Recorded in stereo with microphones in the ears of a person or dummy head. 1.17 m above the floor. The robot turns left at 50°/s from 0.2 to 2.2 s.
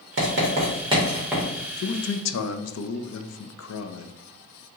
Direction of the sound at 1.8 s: 65° left (ahead or behind).